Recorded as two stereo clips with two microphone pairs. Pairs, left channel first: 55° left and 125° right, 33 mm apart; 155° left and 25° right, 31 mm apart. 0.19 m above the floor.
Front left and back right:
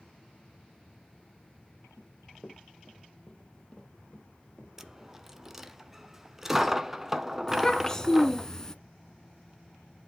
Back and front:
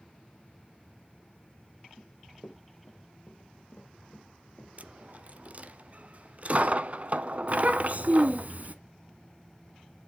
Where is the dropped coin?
50° right, 0.9 m.